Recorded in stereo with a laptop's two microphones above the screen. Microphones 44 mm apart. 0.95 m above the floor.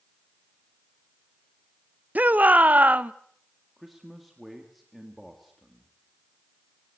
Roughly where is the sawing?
I don't hear sawing.